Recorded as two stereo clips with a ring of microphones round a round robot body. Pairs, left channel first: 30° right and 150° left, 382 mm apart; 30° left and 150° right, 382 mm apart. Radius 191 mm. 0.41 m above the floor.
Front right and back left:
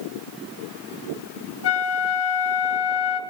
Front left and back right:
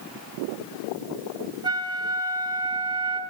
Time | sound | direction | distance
1.6 | a flute | 75° right | 0.8 m